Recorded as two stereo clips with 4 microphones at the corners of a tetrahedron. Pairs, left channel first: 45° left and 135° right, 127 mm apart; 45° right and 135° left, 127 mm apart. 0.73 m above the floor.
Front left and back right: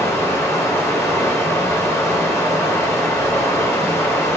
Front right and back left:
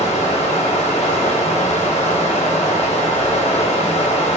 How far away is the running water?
About 0.9 m.